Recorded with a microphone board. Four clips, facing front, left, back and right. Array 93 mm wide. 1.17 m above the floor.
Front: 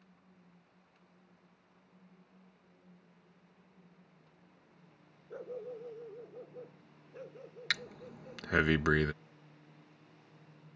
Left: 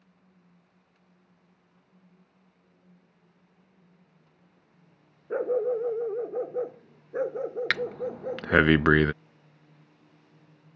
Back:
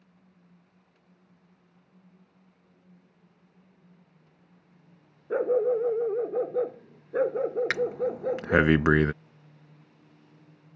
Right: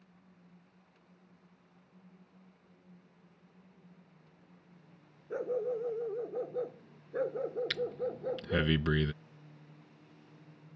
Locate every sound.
5.3 s a dog barking: 145° left; by 8.7 s 170° left
7.7 s breathing: 120° left